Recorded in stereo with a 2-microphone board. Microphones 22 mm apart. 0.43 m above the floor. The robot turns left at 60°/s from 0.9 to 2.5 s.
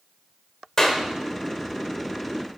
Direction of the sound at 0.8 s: 20° left (ahead or behind).